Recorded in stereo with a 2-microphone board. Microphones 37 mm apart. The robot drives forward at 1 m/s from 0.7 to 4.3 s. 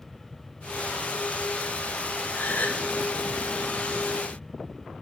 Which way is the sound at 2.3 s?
55° left (ahead or behind).